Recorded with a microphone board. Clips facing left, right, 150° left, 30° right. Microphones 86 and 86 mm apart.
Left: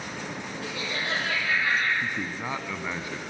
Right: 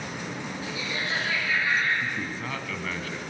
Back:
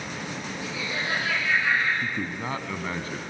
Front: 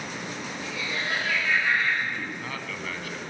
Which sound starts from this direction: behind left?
A man speaking, at 2.0 s.